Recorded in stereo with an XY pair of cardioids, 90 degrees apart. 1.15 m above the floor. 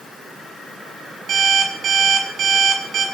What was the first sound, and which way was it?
An alarm clock, 70° right.